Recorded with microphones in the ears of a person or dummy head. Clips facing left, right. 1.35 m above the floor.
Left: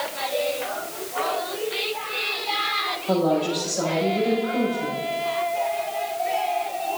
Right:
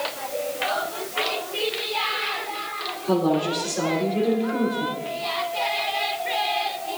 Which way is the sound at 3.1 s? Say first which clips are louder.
Even; 80° right.